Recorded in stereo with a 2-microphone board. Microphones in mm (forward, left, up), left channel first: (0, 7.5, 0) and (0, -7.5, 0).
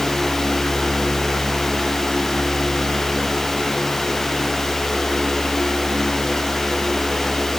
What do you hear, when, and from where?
Only background noise.